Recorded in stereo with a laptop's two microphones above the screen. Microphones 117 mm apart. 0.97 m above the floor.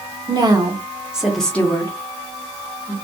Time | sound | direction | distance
0.3 | a woman speaking | 35° right (ahead or behind) | 0.9 m